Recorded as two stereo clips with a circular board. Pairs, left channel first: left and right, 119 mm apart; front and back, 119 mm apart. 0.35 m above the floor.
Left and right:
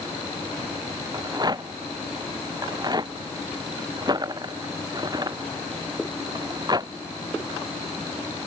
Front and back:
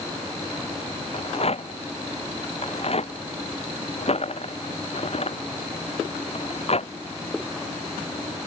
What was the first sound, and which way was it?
A rattle, 35° right.